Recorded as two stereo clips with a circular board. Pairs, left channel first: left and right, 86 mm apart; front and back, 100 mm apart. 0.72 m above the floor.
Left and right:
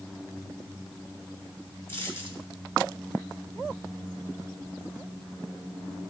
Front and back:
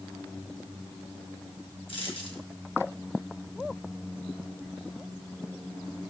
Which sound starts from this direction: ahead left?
A dropped coin, at 1.9 s.